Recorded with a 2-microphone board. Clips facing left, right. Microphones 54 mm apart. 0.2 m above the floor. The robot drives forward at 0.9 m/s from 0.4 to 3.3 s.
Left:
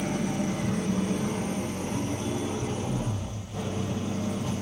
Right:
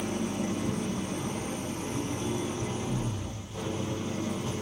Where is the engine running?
70° left (ahead or behind), 1.4 m; by 4.6 s 30° left (ahead or behind), 3 m.